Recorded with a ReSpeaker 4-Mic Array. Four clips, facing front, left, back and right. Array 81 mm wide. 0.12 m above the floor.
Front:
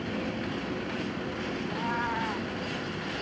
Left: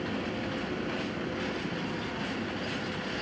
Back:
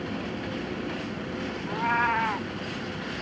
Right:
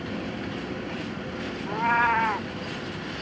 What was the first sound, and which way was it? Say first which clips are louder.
A cat meowing: right 12 dB, back 8 dB; 110° right.